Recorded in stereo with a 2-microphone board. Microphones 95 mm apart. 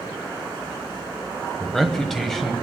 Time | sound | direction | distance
1.6 | a man speaking | 5° left (ahead or behind) | 1.0 m